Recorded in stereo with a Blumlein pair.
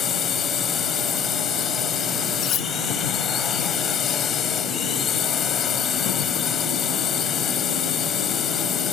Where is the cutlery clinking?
35° left.